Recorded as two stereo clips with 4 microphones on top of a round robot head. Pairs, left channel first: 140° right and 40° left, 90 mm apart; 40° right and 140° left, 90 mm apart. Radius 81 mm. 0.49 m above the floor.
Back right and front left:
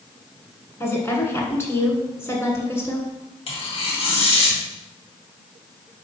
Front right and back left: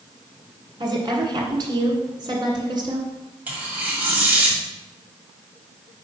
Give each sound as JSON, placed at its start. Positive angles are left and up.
{"t": 0.8, "sound": "a woman speaking", "azimuth_deg": 170, "distance_m": 2.0}
{"t": 3.5, "sound": "tearing paper", "azimuth_deg": -145, "distance_m": 2.0}